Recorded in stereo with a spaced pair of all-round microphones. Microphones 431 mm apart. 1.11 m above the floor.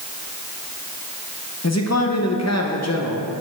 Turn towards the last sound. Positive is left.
turn(degrees=35)  # may be behind; listen again after turning